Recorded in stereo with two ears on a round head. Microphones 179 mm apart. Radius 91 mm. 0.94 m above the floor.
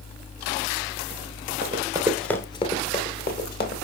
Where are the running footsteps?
35° right (ahead or behind), 1.0 m; by 3.8 s 50° left (ahead or behind), 2 m.